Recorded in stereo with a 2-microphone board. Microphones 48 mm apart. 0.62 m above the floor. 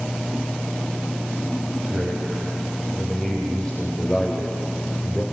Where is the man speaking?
Centre (ahead or behind), 3.5 m; by 5.2 s 30° left (ahead or behind), 3 m.